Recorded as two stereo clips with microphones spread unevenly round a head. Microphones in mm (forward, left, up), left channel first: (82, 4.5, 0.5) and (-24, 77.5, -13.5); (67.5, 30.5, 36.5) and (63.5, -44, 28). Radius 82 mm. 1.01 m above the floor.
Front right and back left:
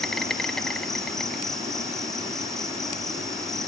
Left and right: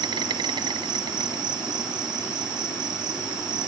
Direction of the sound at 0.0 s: 115° right.